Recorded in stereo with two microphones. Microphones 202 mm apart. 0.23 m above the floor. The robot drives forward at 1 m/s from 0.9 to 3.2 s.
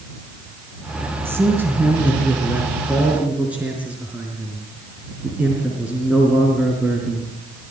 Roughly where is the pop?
No pop in this recording.